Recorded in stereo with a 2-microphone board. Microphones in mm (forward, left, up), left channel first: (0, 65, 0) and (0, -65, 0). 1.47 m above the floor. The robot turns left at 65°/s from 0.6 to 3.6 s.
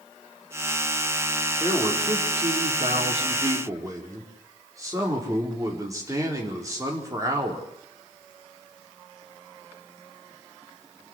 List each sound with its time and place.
1.6 s a man speaking: 25° right, 4.5 m; by 7.7 s 155° right, 4.5 m